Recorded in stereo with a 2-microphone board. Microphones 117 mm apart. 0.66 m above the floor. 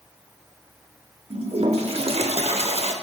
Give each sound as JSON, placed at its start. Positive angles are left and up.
{"t": 1.3, "sound": "a toilet flushing", "side_deg": -60, "distance_m": 0.6}